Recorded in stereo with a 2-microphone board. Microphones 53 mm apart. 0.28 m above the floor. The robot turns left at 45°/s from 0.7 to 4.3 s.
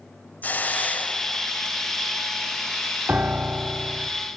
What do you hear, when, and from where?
0.4 s a hiss: 30° left (ahead or behind), 0.8 m; by 1.8 s 25° left (ahead or behind), 0.8 m
3.1 s a piano: 125° right, 0.8 m; by 4.1 s 175° right, 0.8 m